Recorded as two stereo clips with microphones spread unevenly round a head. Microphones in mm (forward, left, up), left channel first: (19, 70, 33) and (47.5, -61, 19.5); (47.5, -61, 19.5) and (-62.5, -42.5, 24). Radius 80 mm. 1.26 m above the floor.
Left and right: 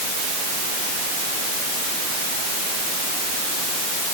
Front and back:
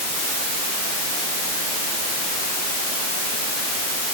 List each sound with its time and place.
Only background noise.